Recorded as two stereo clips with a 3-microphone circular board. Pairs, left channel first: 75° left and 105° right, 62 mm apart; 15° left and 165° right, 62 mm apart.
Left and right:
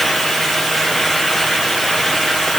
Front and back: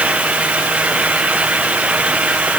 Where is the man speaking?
I don't hear a man speaking.